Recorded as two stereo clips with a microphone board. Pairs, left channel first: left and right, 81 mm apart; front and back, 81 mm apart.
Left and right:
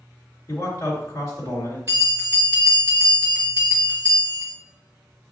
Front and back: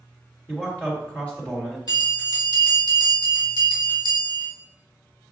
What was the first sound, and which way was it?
A man speaking, 65° left.